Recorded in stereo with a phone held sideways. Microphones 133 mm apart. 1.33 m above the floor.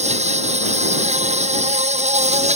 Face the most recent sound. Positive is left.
turn(degrees=-60)  # may be behind; listen again after turning